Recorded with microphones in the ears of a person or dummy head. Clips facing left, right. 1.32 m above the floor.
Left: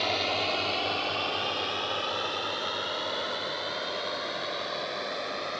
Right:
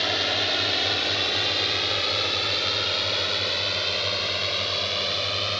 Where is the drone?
10° right (ahead or behind); by 5.6 s 45° right (ahead or behind).